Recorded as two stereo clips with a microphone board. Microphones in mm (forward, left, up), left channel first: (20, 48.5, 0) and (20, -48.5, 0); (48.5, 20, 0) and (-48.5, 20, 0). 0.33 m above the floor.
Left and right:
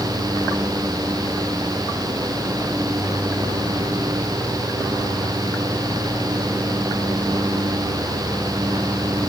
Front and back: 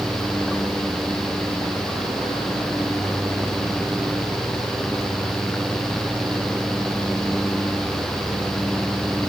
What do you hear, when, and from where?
Only background noise.